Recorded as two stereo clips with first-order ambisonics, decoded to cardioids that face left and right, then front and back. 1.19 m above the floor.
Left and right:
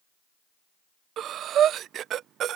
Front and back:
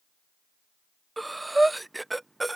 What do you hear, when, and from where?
1.2 s breathing: 100° right